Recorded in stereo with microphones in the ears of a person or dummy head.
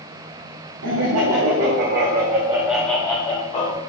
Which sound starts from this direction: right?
Laughter, at 0.8 s.